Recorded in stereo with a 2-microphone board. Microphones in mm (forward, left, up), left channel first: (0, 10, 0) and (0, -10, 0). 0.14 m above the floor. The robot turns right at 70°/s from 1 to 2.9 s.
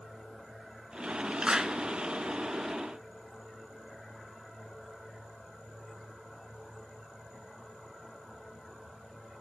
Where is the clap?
40° right (ahead or behind), 1.5 m.